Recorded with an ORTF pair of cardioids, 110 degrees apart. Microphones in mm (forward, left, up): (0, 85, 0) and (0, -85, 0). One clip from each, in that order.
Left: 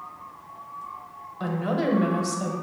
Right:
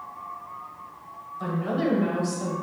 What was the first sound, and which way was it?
A woman speaking, 30° left.